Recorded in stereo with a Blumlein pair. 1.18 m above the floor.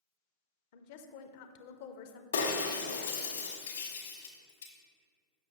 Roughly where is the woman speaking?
Ahead left.